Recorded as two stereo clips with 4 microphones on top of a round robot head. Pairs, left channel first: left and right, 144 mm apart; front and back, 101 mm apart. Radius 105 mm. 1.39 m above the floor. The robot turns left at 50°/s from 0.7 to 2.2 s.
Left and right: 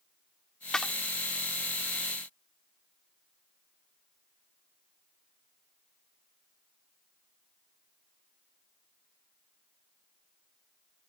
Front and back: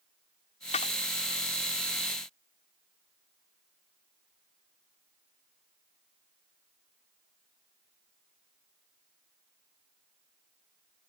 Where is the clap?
5° left; by 0.9 s 5° right.